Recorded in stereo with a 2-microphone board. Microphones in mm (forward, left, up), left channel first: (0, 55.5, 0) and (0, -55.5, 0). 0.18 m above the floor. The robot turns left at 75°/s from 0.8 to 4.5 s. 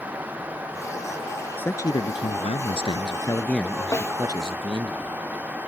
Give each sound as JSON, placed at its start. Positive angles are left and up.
{"t": 1.6, "sound": "a man speaking", "azimuth_deg": 160}
{"t": 3.9, "sound": "a snare drum", "side_deg": 30}